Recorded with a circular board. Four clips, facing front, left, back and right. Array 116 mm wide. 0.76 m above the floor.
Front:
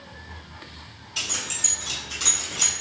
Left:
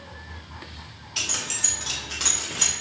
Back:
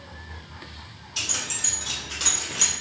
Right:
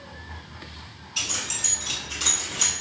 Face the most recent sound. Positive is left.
turn(degrees=140)